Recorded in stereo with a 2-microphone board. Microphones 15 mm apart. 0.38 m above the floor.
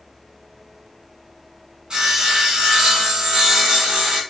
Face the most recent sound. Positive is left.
turn(degrees=-55)  # may be behind; listen again after turning